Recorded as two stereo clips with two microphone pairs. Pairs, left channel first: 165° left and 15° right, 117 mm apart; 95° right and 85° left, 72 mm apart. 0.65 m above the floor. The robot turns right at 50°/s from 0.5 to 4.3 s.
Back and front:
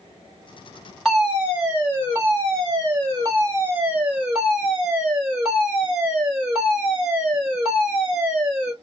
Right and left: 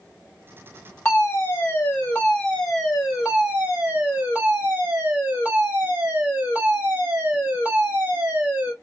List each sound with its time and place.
1.1 s a fire alarm: 100° right, 1.6 m; by 8.7 s 60° left, 1.6 m